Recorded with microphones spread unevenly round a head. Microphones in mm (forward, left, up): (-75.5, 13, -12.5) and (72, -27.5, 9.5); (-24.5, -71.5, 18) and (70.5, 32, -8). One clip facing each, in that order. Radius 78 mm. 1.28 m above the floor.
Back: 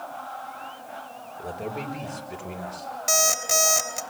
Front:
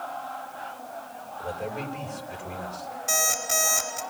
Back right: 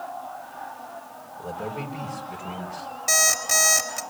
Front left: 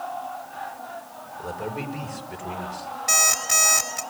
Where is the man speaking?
140° left, 6.5 m.